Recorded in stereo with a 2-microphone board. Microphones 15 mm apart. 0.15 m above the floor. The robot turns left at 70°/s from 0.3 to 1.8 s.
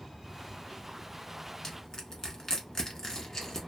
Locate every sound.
1.6 s crushing: 35° left (ahead or behind), 0.9 m; by 3.6 s 40° left (ahead or behind), 0.9 m